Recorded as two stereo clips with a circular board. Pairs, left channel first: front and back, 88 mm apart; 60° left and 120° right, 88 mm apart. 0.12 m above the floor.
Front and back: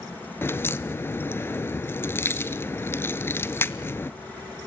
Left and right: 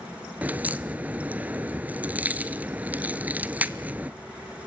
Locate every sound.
0.4 s a crack: 55° right, 0.7 m